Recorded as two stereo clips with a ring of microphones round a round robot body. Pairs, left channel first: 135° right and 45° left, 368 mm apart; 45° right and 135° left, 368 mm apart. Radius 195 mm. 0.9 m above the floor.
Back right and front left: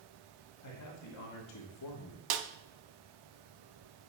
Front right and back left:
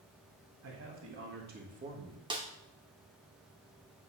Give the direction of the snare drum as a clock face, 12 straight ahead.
10 o'clock.